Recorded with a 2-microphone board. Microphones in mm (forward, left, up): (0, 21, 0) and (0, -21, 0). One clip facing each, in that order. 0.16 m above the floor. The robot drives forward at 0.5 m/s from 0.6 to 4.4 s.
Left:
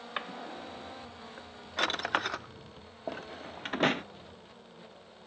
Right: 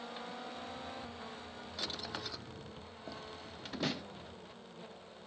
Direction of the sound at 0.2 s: 65° left (ahead or behind).